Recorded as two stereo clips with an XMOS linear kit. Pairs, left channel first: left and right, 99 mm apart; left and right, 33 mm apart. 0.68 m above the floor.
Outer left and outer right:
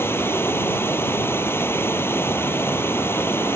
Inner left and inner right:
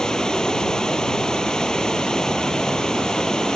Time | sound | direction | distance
0.0 | running water | 20° left (ahead or behind) | ?